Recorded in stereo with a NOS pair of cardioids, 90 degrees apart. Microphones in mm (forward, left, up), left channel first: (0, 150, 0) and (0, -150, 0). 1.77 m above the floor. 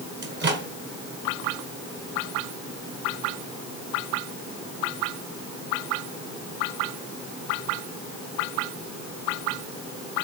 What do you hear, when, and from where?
0.2 s a microwave: 40° right, 1.4 m